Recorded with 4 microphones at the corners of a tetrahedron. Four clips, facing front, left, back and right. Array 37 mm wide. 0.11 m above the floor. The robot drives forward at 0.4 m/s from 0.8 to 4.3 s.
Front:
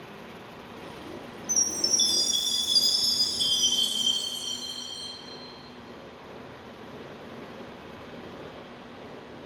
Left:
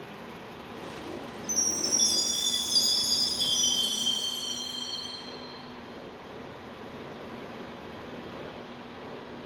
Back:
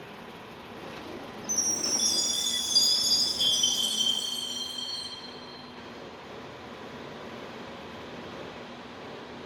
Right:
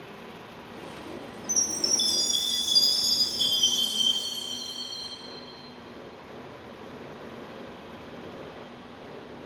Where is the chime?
30° right, 1.3 m; by 5.1 s 135° right, 1.2 m.